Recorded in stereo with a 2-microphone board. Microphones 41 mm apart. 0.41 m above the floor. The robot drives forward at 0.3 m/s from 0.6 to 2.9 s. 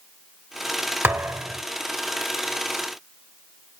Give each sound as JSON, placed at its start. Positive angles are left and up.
{"t": 1.0, "sound": "a thud", "side_deg": -75, "distance_m": 1.4}